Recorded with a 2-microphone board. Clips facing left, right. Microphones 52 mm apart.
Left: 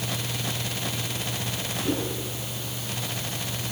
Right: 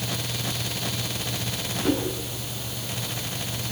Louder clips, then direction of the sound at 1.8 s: Right 4 dB; 80° right.